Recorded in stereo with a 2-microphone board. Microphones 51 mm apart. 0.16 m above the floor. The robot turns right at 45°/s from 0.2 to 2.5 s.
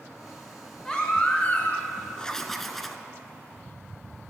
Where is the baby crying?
20° left, 1.1 m; by 1.9 s 70° left, 1.1 m.